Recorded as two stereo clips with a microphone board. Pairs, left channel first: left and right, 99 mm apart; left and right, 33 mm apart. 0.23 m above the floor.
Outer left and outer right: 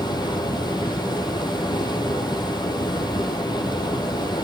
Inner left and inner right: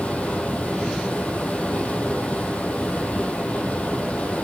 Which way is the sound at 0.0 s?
45° left (ahead or behind).